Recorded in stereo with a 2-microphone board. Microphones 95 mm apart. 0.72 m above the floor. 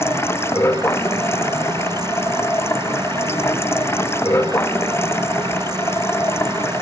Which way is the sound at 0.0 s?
30° left (ahead or behind).